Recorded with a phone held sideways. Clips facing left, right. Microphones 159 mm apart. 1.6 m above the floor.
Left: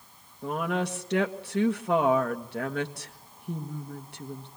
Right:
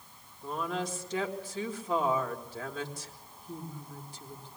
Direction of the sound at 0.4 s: 70° left (ahead or behind).